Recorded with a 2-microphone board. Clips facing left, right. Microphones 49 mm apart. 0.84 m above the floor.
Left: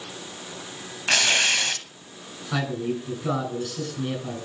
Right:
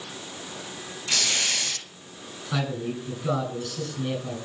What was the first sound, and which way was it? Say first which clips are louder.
Tearing paper: left 7 dB; 60° left (ahead or behind).